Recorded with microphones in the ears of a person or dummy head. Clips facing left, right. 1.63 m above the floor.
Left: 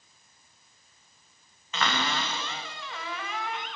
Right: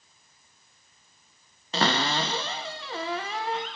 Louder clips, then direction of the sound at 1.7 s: Right 4 dB; 35° right (ahead or behind).